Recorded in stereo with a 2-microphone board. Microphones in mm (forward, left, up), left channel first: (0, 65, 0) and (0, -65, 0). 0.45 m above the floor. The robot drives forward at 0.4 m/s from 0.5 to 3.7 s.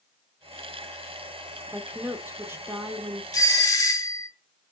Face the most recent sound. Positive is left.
turn(degrees=25)  # may be behind; listen again after turning